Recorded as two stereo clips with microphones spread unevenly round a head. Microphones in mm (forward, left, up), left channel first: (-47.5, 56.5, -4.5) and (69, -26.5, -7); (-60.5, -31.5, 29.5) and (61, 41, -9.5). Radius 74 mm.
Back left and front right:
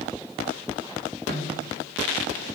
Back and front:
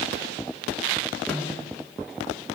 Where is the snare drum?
65° right, 4 m.